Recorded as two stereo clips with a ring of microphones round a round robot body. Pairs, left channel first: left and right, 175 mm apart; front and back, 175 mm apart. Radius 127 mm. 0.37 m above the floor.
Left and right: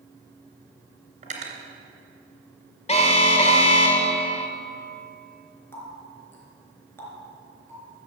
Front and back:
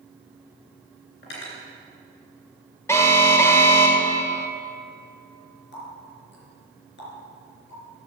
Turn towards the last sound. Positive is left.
turn(degrees=15)